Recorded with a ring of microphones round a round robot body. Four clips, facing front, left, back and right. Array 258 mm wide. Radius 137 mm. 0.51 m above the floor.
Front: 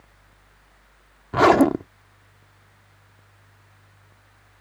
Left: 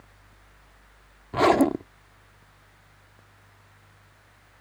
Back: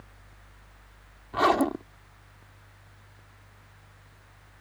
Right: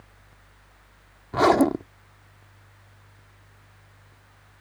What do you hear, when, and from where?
1.3 s a zipper: 10° right